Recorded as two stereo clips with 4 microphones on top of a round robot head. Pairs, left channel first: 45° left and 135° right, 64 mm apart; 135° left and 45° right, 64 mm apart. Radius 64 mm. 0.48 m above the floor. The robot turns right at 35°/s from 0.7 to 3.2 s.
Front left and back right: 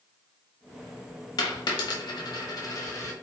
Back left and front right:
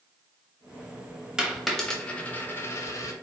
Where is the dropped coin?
35° left, 0.9 m; by 3.1 s 95° left, 0.9 m.